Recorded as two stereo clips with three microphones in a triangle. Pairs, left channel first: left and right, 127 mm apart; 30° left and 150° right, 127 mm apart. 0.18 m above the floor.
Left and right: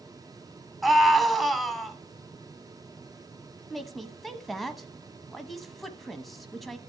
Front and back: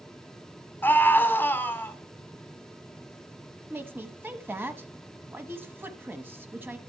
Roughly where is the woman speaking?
Behind.